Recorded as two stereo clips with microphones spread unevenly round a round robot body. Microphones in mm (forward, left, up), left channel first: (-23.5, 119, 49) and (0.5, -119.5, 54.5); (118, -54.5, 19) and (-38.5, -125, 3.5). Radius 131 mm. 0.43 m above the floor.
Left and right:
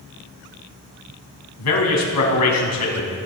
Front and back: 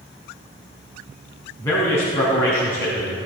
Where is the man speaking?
105° left, 3.5 m.